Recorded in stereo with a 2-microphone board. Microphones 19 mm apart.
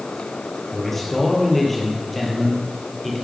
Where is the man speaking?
10° left (ahead or behind), 4 m.